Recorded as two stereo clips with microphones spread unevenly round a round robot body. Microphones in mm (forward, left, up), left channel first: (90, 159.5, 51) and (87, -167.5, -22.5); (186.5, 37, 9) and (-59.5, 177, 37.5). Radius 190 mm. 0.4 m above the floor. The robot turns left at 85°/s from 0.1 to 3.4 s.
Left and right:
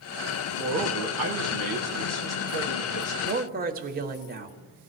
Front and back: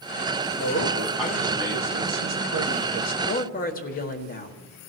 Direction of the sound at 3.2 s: 50° right.